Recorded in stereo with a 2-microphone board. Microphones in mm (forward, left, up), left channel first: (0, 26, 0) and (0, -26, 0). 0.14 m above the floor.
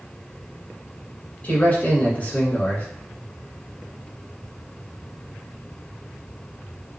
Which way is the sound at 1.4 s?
30° left (ahead or behind).